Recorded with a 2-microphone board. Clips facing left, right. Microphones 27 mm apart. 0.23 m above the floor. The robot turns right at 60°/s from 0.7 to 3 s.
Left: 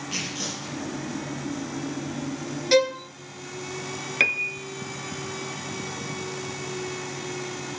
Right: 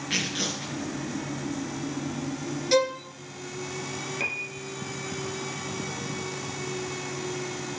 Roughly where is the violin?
Left.